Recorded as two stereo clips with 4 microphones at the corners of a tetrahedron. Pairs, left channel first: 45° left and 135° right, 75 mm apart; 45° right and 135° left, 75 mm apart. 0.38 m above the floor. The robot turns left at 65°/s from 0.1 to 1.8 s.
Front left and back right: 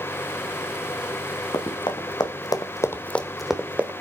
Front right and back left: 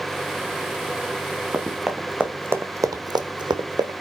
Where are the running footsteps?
65° left, 2 m; by 3.9 s 155° left, 1.6 m.